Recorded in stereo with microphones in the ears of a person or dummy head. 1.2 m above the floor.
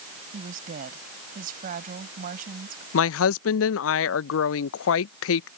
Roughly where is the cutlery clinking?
I don't hear cutlery clinking.